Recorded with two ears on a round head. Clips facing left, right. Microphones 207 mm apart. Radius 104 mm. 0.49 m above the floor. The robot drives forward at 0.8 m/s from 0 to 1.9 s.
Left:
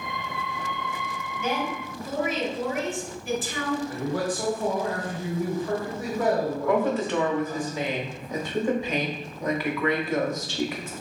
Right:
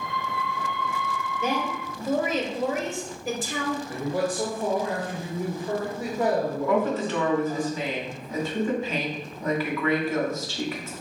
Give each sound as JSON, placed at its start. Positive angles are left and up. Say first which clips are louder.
{"t": 1.4, "sound": "a woman speaking", "louder": "even", "side_deg": -35, "distance_m": 1.0}
{"t": 3.9, "sound": "a man speaking", "louder": "right 1 dB", "side_deg": -20, "distance_m": 1.2}
{"t": 6.7, "sound": "a woman speaking", "louder": "left 1 dB", "side_deg": 15, "distance_m": 1.1}